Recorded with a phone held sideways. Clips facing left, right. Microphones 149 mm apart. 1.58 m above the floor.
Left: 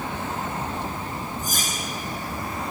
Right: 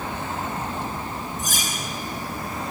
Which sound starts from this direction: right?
Cutlery clinking, at 1.4 s.